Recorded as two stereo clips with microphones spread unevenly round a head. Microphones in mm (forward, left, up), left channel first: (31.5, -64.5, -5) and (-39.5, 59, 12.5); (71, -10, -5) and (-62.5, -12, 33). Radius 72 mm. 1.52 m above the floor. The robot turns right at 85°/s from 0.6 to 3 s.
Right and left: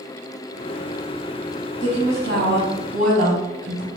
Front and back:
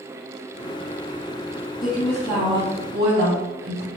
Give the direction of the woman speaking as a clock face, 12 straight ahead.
10 o'clock.